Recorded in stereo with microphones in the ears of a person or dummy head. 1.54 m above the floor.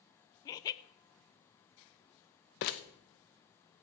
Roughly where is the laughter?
Left.